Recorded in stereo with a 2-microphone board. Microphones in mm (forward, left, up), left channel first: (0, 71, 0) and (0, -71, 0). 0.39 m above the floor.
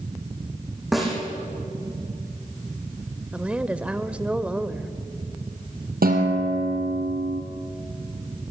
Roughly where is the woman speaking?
Centre.